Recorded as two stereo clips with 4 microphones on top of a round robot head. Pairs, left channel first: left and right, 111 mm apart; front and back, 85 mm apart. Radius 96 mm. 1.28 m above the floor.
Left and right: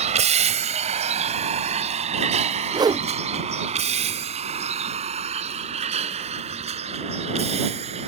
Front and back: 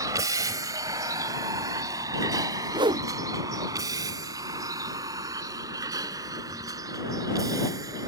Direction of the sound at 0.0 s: 115° right.